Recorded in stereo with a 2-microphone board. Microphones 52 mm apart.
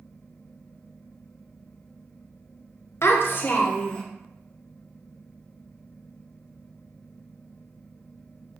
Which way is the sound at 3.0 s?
60° left (ahead or behind).